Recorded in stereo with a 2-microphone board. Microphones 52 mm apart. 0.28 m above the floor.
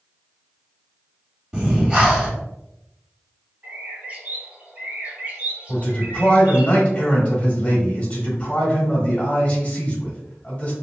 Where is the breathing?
20° right (ahead or behind), 1.5 m.